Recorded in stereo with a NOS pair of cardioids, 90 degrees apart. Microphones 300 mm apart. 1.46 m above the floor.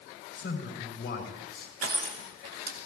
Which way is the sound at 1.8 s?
50° right.